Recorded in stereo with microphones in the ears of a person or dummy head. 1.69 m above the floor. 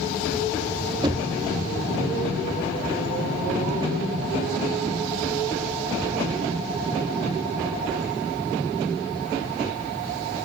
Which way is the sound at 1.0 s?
25° right (ahead or behind).